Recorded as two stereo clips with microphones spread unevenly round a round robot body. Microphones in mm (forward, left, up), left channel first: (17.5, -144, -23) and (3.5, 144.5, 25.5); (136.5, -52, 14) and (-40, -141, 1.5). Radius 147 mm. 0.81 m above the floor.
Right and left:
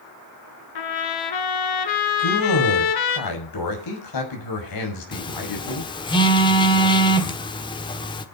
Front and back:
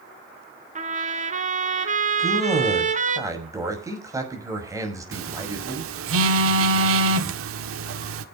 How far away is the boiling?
I don't hear boiling.